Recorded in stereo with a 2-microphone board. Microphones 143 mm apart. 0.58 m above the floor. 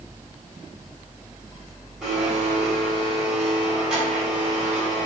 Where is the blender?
5° right (ahead or behind), 3 m.